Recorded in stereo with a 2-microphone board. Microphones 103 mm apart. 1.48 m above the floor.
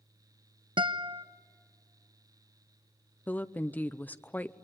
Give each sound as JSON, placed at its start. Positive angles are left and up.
{"t": 0.8, "sound": "a guitar", "side_deg": -55, "distance_m": 0.7}
{"t": 3.3, "sound": "a woman speaking", "side_deg": 15, "distance_m": 0.7}